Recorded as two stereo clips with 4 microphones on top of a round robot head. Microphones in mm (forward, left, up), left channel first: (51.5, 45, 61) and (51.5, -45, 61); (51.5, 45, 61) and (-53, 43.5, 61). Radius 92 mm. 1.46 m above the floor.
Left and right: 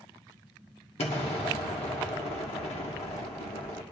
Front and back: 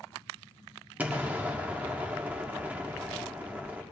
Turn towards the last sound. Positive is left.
turn(degrees=105)